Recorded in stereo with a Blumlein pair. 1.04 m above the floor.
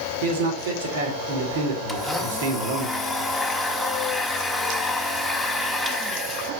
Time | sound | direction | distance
0.2 | a man speaking | 55° right | 2.5 m
1.9 | a blender | straight ahead | 1.4 m